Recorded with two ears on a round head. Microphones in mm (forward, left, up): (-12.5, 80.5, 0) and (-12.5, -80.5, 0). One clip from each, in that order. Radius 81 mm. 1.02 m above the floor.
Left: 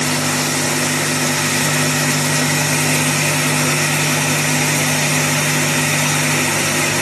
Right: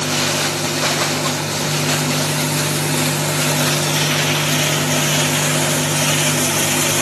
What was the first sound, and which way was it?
Only background noise.